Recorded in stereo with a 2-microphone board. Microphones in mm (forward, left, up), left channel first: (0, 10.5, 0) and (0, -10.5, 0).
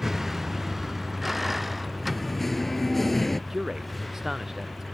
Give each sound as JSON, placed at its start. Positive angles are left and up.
{"t": 0.0, "sound": "a vehicle", "side_deg": -15}
{"t": 2.0, "sound": "singing", "side_deg": 5}
{"t": 3.5, "sound": "a man speaking", "side_deg": -20}